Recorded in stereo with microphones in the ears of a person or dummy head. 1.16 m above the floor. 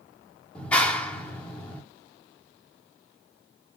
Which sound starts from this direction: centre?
A clap, at 0.6 s.